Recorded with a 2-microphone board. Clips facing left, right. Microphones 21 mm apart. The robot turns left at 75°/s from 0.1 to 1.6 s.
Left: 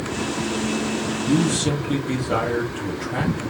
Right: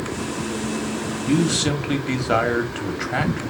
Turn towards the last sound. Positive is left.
turn(degrees=-55)  # may be behind; listen again after turning